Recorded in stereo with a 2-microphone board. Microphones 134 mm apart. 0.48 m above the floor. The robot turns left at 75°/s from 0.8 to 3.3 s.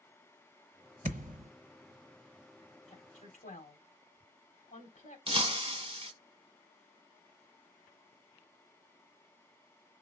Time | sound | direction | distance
1.0 | a thud | 60° right (ahead or behind) | 0.8 m
2.9 | a woman speaking | 55° left (ahead or behind) | 3 m
5.3 | breaking glass | 45° right (ahead or behind) | 0.7 m